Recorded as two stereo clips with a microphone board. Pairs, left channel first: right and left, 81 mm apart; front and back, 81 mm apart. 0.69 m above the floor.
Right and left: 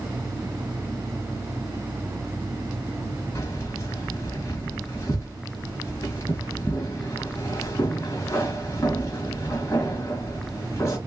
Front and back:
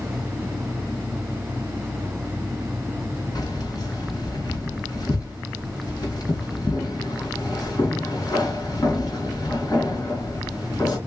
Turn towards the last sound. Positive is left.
turn(degrees=-35)